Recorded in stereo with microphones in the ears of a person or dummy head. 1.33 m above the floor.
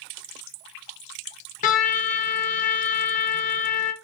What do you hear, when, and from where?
1.6 s a trumpet: 45° left (ahead or behind), 0.7 m